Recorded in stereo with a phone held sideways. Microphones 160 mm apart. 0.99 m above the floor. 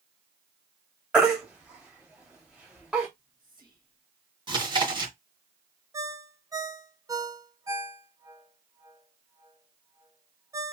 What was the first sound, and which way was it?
A baby crying, 5° right (ahead or behind).